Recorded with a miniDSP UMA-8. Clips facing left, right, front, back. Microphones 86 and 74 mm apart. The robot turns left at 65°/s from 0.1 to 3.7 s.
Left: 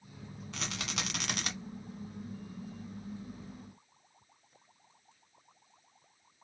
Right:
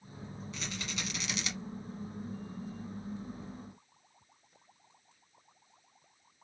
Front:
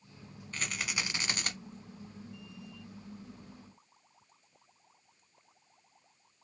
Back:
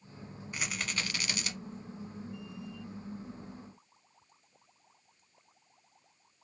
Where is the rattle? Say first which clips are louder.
Left 3 dB, even; 105° left, 1.0 m; by 1.5 s 40° left, 1.0 m.